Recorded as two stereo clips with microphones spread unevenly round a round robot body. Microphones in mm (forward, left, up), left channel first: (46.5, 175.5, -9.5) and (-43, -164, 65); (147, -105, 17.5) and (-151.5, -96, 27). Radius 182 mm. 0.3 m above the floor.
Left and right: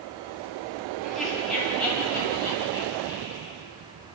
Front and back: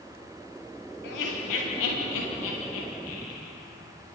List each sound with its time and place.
1.0 s laughter: 15° right, 9 m; by 3.5 s 5° right, 12 m